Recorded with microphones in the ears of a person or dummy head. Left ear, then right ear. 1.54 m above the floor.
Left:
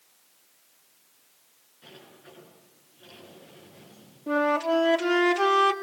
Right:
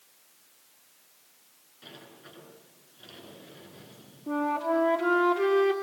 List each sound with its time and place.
1.8 s a sliding door: 25° right (ahead or behind), 8 m
4.3 s a flute: 70° left (ahead or behind), 2.5 m